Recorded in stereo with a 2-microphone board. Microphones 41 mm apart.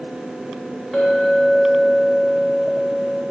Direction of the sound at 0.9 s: 5° right (ahead or behind).